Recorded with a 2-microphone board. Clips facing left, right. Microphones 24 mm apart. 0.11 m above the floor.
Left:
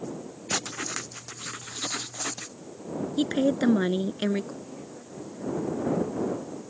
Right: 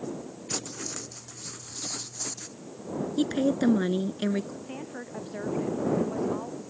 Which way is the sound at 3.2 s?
15° left (ahead or behind).